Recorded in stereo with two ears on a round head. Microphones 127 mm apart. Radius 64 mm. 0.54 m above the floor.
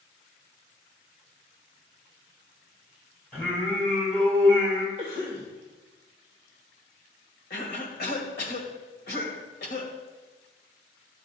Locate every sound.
3.3 s singing: 10° left (ahead or behind), 3.5 m
5.0 s a cough: 35° left (ahead or behind), 1.8 m
7.5 s a cough: 70° left (ahead or behind), 2 m